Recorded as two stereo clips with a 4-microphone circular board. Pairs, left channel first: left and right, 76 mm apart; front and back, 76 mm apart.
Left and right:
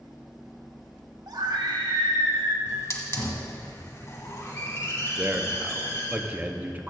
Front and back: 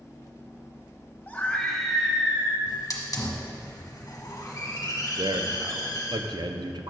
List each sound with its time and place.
1.3 s a scream: 65° right, 1.4 m; by 2.6 s 115° right, 1.8 m
2.7 s a hiss: 40° left, 1.3 m
5.2 s a man speaking: 160° right, 0.6 m